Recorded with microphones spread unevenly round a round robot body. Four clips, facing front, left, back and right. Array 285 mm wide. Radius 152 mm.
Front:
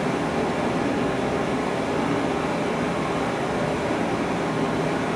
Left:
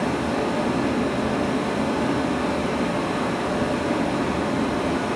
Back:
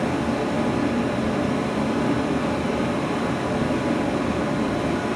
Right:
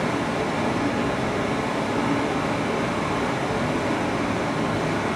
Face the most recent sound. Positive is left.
turn(degrees=170)